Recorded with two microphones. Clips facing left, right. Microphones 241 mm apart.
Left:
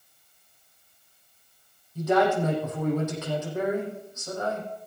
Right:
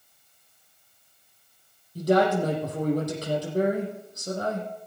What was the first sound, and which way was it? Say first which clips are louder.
A man speaking: right 1 dB; 40° right (ahead or behind).